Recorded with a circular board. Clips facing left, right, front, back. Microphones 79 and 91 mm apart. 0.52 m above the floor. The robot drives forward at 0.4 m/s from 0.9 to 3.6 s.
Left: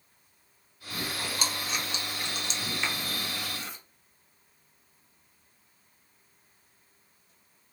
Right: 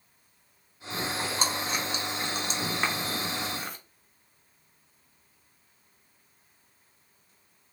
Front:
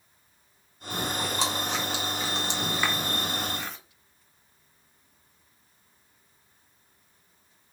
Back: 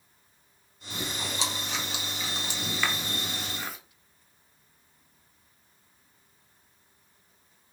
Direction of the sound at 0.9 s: 30° right.